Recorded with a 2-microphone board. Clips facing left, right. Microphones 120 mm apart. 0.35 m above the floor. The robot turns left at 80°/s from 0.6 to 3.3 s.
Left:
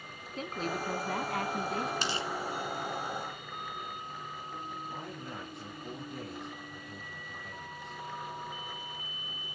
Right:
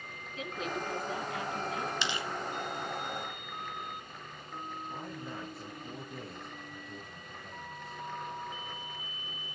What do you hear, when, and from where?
0.4 s a woman speaking: 135° left, 2.5 m; by 1.9 s 30° left, 2.5 m
2.0 s tearing paper: 45° left (ahead or behind), 1.7 m; by 2.3 s 25° left (ahead or behind), 1.7 m
4.9 s a man speaking: 5° right (ahead or behind), 7.5 m